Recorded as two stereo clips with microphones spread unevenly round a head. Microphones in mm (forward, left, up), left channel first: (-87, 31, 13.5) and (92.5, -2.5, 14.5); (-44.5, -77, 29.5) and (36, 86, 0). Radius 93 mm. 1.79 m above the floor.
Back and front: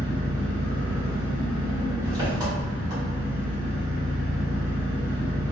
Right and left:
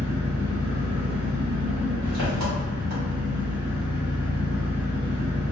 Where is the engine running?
55° left, 1.3 m.